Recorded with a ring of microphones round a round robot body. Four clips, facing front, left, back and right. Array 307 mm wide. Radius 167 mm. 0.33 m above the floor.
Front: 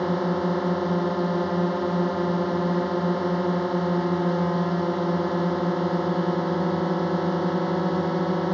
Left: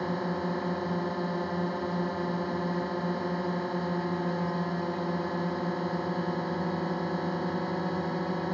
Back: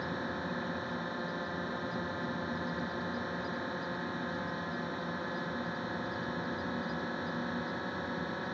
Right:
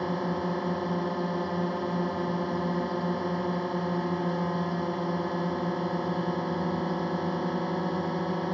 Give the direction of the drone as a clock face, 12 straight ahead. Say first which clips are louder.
Right 1 dB, front 13 dB; 12 o'clock.